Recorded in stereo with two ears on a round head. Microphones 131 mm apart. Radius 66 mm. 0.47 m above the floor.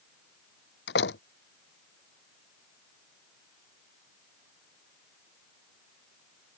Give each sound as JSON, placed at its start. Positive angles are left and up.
{"t": 0.9, "sound": "a door slam", "side_deg": 85}